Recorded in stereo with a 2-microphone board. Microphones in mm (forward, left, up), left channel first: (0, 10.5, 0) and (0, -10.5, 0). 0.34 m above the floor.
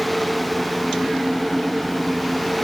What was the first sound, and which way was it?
Only background noise.